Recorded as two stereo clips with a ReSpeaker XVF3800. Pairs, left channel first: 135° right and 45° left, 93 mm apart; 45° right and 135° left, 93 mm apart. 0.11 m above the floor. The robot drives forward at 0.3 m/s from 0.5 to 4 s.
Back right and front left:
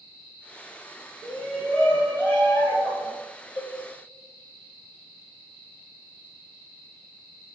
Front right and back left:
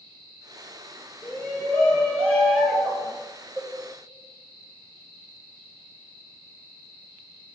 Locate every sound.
1.2 s a shout: 60° right, 1.1 m; by 3.1 s 140° right, 1.1 m
3.6 s a cowbell: 140° right, 1.4 m